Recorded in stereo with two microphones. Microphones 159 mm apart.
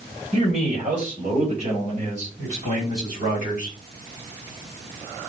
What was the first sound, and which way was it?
A man speaking, 40° right (ahead or behind).